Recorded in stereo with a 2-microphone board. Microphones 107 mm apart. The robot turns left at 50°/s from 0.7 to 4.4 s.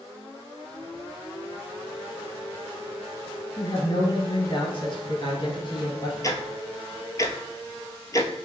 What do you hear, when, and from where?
3.6 s a woman speaking: 125° left, 2.0 m; by 6.1 s 80° left, 2.0 m
6.2 s ticking: 35° left (ahead or behind), 0.6 m